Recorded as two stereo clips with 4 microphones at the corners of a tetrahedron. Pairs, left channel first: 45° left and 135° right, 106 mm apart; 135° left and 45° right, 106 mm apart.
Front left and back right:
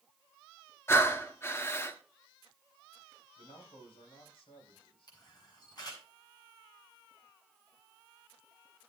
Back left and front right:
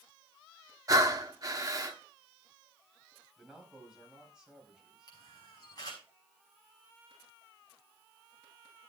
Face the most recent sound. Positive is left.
turn(degrees=90)